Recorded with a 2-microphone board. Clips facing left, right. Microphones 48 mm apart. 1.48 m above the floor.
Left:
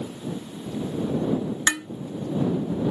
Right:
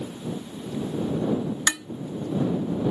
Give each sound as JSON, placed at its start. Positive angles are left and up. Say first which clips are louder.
{"t": 1.7, "sound": "dishes clattering", "louder": "left 3 dB", "side_deg": 25}